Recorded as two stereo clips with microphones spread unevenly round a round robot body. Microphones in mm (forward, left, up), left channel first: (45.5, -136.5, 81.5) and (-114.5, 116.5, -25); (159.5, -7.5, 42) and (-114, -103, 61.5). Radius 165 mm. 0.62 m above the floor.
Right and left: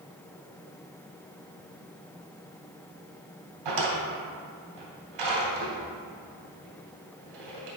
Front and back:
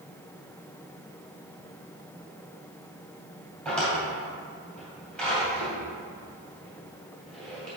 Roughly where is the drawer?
Left.